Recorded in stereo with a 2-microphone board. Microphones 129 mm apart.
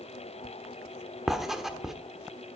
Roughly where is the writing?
Centre.